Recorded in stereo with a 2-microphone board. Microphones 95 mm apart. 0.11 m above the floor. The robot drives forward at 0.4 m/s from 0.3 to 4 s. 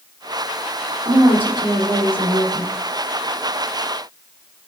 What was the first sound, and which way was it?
A woman speaking, 50° right (ahead or behind).